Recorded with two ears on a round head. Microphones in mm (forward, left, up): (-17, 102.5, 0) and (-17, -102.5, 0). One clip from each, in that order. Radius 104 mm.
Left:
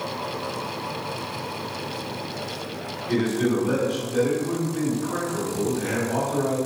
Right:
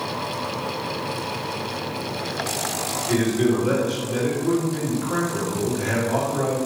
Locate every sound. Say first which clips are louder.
3.1 s a man speaking: right 2 dB; 70° right (ahead or behind), 1.7 m